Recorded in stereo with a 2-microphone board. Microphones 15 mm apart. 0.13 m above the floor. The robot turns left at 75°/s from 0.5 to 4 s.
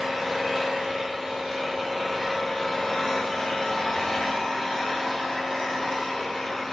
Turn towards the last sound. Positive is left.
turn(degrees=55)